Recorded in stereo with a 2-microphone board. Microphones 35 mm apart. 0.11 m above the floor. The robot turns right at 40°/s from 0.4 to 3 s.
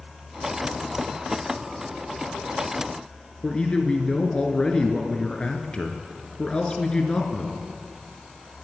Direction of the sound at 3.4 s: 25° left (ahead or behind).